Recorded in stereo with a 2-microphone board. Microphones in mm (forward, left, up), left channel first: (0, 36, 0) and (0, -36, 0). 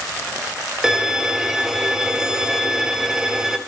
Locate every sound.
0.8 s a violin: 5° right (ahead or behind), 0.6 m